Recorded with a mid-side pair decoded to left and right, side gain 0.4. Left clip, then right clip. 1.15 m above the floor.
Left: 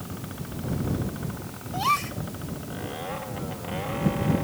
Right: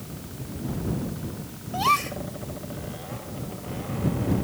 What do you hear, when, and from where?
1.7 s a gasp: 20° right